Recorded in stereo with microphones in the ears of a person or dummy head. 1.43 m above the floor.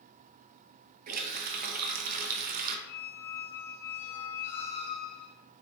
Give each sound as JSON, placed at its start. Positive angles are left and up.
{"t": 1.1, "sound": "a running tap", "side_deg": -50, "distance_m": 0.8}
{"t": 2.9, "sound": "a squeak", "side_deg": 35, "distance_m": 1.8}